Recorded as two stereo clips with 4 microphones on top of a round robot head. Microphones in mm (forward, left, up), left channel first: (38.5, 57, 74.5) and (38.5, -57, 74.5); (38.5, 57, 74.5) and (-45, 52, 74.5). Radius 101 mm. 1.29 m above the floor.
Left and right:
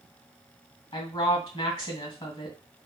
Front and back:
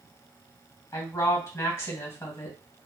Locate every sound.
0.9 s a woman speaking: 55° left, 1.8 m